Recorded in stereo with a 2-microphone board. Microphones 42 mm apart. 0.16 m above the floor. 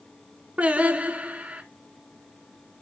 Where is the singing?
30° right (ahead or behind), 0.8 m.